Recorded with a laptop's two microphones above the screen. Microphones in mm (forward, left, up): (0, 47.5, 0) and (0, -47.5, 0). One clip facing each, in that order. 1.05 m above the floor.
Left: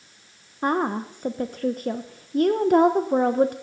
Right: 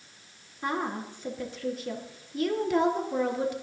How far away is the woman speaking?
About 0.8 m.